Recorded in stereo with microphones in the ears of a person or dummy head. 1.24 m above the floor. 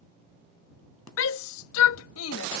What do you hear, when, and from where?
1.2 s a shout: 80° left